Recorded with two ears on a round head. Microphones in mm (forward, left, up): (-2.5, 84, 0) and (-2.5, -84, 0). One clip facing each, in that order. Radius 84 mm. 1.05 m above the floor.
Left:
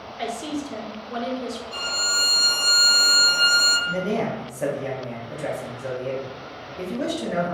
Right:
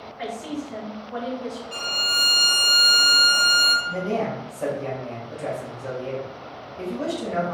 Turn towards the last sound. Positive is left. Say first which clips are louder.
# left 1 dB
turn(degrees=15)  # may be behind; listen again after turning